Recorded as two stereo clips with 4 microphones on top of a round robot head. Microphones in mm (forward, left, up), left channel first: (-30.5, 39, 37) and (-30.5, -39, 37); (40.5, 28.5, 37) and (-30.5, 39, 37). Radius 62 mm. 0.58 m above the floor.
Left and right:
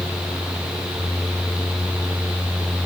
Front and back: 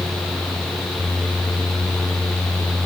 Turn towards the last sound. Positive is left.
No sound to turn to.